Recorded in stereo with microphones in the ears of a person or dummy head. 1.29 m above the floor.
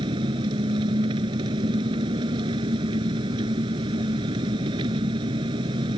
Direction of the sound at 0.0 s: 30° right (ahead or behind).